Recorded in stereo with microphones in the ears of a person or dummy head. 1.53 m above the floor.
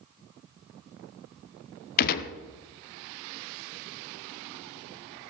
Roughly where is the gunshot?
Left.